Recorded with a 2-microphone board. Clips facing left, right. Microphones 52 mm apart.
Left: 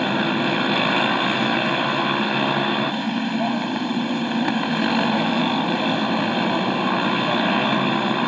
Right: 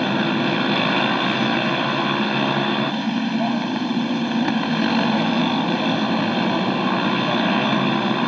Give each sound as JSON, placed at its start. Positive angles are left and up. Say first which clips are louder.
{"t": 0.0, "sound": "a motorcycle", "louder": "right 1 dB", "side_deg": 5}